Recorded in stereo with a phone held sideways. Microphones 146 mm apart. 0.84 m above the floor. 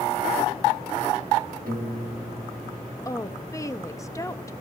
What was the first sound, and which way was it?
A piano, 80° right.